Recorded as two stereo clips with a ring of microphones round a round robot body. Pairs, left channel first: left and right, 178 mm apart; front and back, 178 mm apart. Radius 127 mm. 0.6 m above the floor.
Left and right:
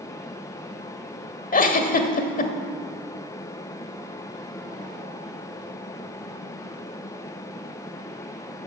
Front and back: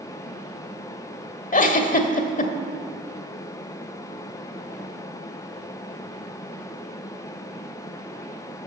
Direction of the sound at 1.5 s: 45° left.